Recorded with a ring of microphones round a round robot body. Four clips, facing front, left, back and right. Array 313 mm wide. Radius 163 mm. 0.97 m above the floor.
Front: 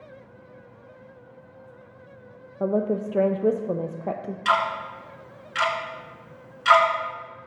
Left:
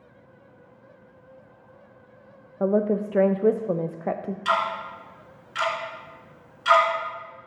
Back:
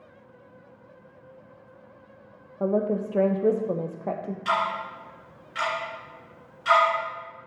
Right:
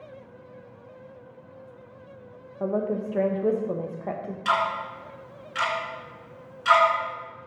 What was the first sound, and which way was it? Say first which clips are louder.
A woman speaking: left 4 dB, front 1 dB; 75° left.